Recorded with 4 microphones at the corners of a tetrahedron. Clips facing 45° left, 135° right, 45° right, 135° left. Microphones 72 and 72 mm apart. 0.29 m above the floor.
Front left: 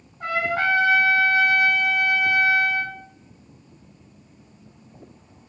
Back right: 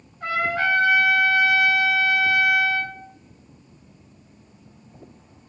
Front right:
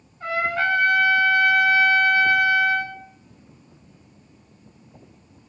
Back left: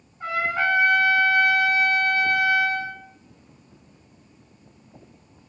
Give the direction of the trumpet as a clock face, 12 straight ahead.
10 o'clock.